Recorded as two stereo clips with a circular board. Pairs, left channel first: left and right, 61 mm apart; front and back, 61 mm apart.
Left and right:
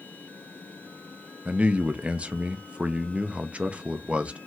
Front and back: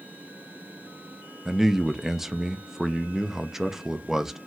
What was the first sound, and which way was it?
A man speaking, 105° right.